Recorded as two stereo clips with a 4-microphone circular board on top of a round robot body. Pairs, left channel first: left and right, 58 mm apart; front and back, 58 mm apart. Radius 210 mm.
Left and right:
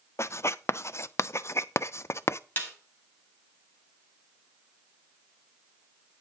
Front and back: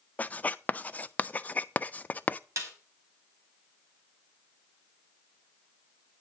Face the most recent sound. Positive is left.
turn(degrees=145)